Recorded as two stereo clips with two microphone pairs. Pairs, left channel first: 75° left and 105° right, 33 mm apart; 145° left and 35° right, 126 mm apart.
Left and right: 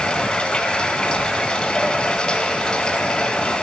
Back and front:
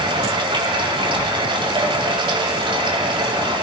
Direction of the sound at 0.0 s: 10° left.